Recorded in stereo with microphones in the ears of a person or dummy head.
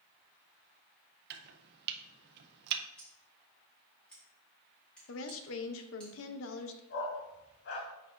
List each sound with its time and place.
1.3 s chopping: 60° right (ahead or behind), 0.6 m
3.0 s scissors: 5° left (ahead or behind), 1.9 m
5.1 s a woman speaking: 70° left (ahead or behind), 0.6 m
6.9 s a dog barking: 65° left (ahead or behind), 2.5 m